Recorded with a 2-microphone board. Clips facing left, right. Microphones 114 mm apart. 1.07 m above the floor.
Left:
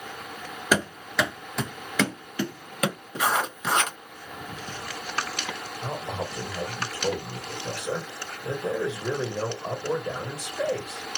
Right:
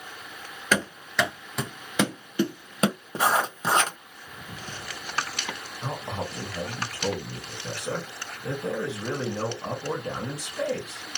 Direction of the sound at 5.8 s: 75° right (ahead or behind).